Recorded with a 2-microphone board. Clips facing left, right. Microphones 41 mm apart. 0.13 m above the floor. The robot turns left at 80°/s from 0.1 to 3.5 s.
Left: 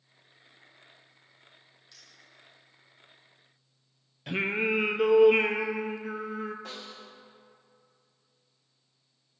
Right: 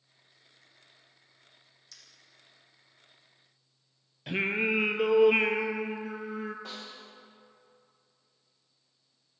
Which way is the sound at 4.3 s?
Centre (ahead or behind).